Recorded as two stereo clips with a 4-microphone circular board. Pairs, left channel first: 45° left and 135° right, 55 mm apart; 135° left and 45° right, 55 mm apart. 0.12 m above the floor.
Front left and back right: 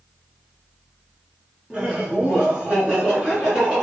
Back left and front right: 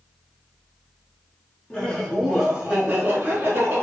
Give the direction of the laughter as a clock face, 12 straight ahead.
6 o'clock.